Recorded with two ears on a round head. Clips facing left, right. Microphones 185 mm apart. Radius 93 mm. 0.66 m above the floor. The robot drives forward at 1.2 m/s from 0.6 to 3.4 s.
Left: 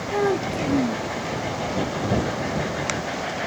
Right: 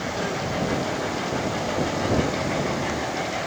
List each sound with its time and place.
0.1 s a child speaking: 75° left (ahead or behind); by 1.1 s 70° left (ahead or behind)